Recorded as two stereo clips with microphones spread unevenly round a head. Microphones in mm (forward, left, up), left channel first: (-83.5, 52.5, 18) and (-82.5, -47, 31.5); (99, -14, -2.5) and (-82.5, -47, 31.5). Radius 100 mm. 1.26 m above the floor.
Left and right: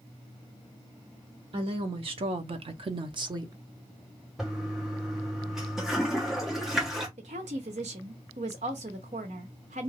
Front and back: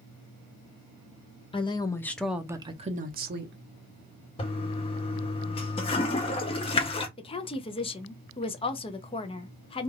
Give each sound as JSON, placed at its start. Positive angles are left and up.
{"t": 1.5, "sound": "a woman speaking", "azimuth_deg": -40, "distance_m": 0.8}
{"t": 4.4, "sound": "a toilet flushing", "azimuth_deg": -30, "distance_m": 0.6}
{"t": 7.2, "sound": "a woman speaking", "azimuth_deg": -55, "distance_m": 0.6}